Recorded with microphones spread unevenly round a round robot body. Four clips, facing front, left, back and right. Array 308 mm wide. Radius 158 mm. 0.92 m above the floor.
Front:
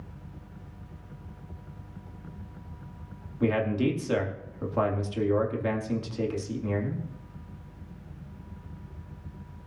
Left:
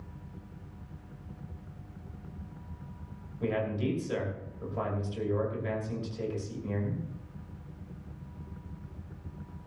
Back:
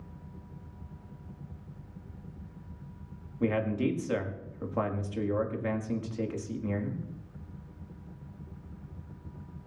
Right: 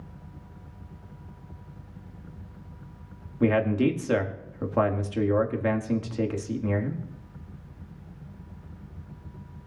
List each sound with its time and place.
3.4 s a man speaking: 85° right, 2 m